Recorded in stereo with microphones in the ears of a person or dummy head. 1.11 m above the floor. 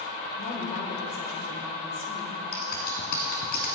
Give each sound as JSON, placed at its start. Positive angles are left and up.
{"t": 0.4, "sound": "a woman speaking", "side_deg": 50, "distance_m": 4.5}
{"t": 2.5, "sound": "scissors", "side_deg": 55, "distance_m": 2.0}